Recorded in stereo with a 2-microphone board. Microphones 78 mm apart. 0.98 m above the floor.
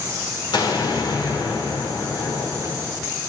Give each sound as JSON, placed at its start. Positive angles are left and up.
{"t": 0.5, "sound": "an explosion", "side_deg": 85, "distance_m": 2.5}